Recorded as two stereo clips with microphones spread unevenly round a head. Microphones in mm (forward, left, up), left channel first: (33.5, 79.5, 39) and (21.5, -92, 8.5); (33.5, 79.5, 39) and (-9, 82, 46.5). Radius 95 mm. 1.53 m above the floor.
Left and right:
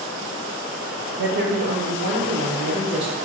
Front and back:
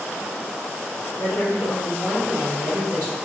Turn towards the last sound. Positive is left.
turn(degrees=-135)